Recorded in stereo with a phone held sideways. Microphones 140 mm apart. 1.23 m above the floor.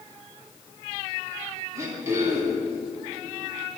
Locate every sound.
1.8 s throat clearing: 20° right (ahead or behind), 2 m